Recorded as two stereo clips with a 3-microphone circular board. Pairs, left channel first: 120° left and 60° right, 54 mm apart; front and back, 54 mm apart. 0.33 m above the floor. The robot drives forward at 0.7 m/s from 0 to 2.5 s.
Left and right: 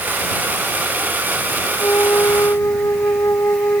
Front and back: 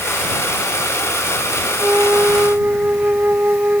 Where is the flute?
130° left; by 3.8 s 135° left.